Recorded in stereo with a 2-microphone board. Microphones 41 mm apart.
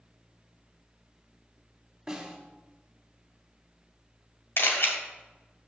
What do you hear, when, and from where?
2.1 s a snare drum: 15° right (ahead or behind), 1.6 m
4.6 s a camera shutter: 70° left (ahead or behind), 1.5 m